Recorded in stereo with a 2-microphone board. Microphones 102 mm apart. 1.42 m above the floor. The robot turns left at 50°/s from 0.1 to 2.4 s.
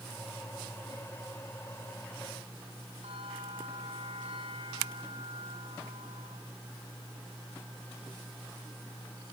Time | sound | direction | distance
3.0 | a bell | 85° right | 9.5 m